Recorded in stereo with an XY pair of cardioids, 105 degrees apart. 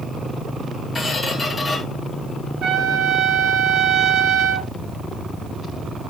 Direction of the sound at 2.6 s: 70° right.